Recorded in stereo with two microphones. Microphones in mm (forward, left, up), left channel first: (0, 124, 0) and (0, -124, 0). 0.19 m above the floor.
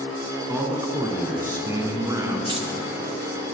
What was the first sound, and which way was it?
A man speaking, 15° right (ahead or behind).